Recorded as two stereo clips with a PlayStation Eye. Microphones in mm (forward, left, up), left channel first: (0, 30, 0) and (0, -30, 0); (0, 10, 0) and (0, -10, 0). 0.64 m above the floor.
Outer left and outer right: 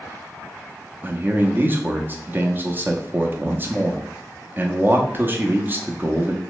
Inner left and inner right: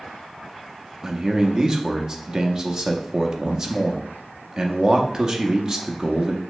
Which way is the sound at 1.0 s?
35° right (ahead or behind).